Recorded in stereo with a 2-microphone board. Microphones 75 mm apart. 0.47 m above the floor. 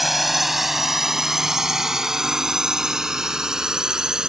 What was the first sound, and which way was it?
A drone, centre (ahead or behind).